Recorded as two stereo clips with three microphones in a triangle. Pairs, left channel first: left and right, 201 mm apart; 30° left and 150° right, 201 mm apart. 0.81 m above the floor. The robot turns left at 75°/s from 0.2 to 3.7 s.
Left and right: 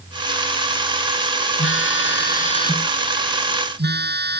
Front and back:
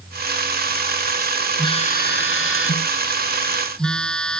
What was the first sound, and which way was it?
A phone buzzing, 100° left.